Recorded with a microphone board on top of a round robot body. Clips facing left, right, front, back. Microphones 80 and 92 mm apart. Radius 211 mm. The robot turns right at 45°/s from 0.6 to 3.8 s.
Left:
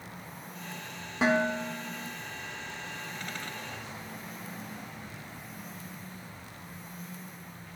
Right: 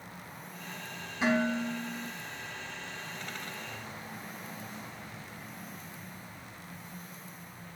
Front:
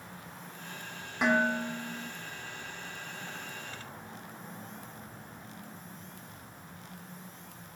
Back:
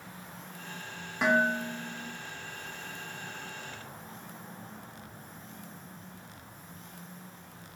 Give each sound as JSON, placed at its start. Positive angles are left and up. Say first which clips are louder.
{"t": 1.2, "sound": "dishes clattering", "louder": "left 2 dB, back 1 dB", "azimuth_deg": 90, "distance_m": 3.0}